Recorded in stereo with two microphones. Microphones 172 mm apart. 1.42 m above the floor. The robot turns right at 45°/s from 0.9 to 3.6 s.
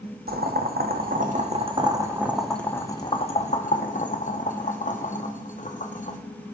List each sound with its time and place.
0.3 s boiling: 60° right (ahead or behind), 0.7 m; by 6.2 s 45° left (ahead or behind), 0.7 m